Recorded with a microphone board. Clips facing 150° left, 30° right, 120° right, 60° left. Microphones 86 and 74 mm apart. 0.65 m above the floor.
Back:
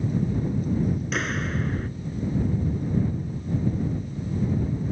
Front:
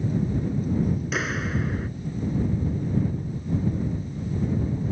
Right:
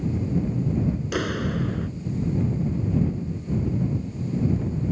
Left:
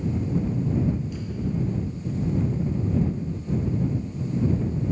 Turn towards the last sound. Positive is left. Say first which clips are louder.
# even, right 4 dB
turn(degrees=-115)